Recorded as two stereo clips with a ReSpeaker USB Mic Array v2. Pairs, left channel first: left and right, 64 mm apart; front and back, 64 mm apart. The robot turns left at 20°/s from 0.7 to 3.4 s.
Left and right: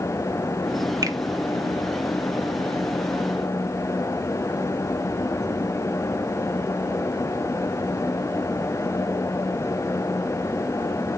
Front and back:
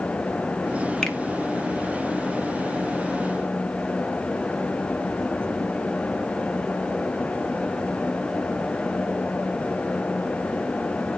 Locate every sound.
1.0 s a finger snap: 80° right, 1.0 m